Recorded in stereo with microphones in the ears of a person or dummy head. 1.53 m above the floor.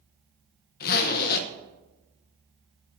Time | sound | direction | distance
0.8 | a zipper | 50° left (ahead or behind) | 1.1 m